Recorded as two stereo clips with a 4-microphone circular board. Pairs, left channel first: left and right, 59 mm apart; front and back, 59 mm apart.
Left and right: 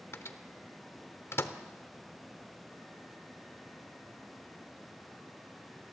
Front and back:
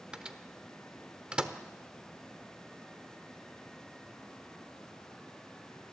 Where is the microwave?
110° left, 0.9 m.